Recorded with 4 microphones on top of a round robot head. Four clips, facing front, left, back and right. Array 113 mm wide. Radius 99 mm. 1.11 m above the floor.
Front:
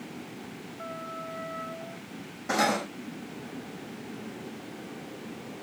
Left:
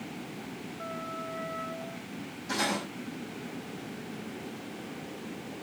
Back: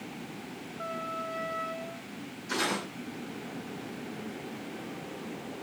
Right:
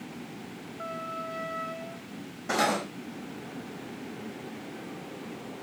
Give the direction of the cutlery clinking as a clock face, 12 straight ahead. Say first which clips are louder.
Right 5 dB, front 6 dB; 1 o'clock.